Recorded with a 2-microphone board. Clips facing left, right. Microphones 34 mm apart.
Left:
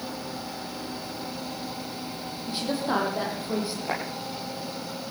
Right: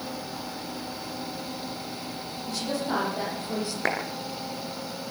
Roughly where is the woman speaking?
Left.